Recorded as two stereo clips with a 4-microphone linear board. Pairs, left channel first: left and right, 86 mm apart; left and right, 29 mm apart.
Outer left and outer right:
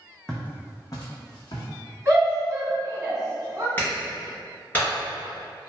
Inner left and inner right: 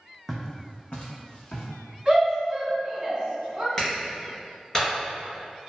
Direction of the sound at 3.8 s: 20° left (ahead or behind).